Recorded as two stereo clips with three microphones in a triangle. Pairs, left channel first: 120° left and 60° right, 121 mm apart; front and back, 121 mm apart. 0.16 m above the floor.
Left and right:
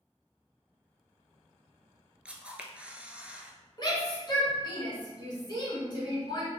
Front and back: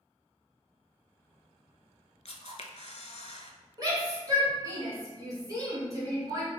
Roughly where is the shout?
Behind left.